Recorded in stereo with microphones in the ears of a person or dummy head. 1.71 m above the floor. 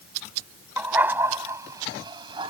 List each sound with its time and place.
0.8 s a dog barking: 10° right (ahead or behind); by 2.5 s 30° right (ahead or behind)